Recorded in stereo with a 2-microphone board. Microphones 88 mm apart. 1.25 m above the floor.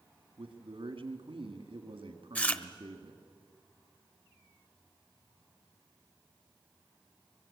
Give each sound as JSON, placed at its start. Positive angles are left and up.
{"t": 0.4, "sound": "a man speaking", "side_deg": -85, "distance_m": 1.9}
{"t": 2.4, "sound": "chewing", "side_deg": 20, "distance_m": 1.0}